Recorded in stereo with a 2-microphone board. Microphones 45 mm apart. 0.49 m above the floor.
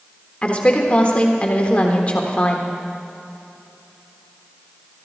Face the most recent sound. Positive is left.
turn(degrees=30)  # may be behind; listen again after turning